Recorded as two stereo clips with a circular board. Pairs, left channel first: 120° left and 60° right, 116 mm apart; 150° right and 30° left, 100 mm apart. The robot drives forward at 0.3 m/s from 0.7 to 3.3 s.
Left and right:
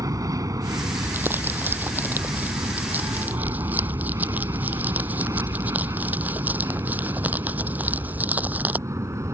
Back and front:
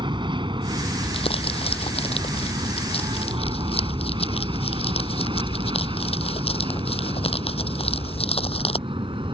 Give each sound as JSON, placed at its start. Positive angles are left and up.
{"t": 0.0, "sound": "an aircraft", "azimuth_deg": -5}
{"t": 1.0, "sound": "crumpling", "azimuth_deg": -135}